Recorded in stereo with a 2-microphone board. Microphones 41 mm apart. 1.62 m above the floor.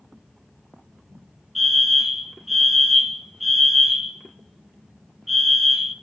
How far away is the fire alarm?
About 1.6 m.